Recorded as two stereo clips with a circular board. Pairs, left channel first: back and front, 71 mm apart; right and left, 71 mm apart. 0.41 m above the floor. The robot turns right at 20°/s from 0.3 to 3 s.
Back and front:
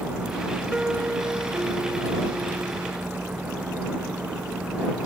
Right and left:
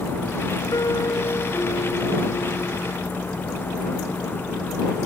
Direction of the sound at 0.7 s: 75° right.